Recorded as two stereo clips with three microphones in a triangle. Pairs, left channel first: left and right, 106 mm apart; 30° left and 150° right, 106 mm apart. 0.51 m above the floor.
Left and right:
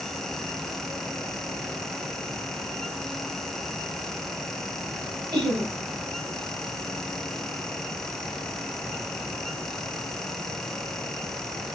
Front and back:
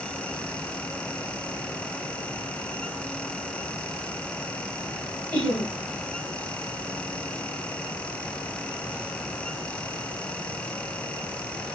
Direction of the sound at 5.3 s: 40° right.